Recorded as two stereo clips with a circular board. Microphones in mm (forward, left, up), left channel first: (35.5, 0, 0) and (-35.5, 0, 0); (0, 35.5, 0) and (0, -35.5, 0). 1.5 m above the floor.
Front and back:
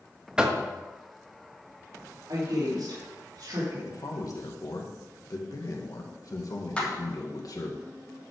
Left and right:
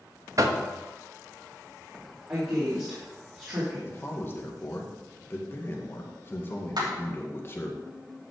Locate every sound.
0.4 s knocking: 105° right, 1.0 m
2.3 s a woman speaking: 150° right, 3.5 m
3.9 s a man speaking: 35° left, 1.9 m
6.8 s a clap: 75° right, 3 m